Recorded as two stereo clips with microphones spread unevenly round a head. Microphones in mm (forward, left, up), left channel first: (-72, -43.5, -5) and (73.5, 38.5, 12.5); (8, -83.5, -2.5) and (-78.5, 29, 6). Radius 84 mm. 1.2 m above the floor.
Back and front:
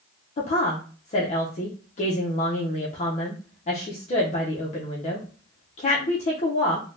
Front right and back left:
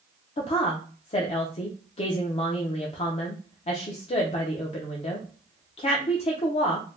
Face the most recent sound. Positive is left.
turn(degrees=-100)